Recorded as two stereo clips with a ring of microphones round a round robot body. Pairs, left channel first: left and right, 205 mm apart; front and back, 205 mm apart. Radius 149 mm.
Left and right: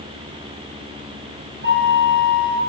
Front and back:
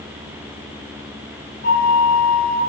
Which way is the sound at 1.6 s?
60° right.